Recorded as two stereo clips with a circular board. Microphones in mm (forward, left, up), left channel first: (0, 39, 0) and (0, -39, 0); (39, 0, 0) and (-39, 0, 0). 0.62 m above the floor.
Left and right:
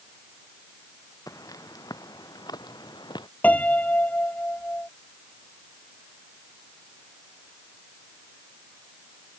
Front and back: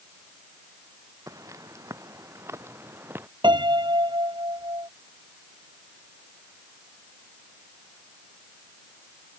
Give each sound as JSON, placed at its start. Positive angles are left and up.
{"t": 1.3, "sound": "footsteps", "azimuth_deg": 135}
{"t": 3.4, "sound": "a piano", "azimuth_deg": 160}